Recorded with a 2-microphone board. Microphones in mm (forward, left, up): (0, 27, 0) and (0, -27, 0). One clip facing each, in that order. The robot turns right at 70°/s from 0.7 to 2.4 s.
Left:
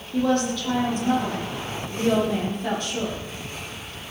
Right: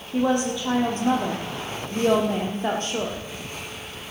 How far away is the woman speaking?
About 5.5 m.